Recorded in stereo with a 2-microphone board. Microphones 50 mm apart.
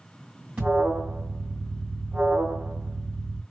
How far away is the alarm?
About 2.5 m.